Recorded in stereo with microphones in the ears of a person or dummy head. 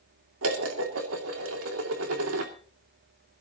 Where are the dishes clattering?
85° right, 2.5 m.